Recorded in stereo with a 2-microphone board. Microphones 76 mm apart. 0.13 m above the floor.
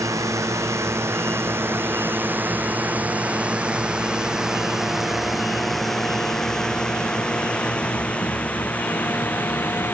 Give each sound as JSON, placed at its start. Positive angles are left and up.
{"t": 0.0, "sound": "a drone", "side_deg": -40}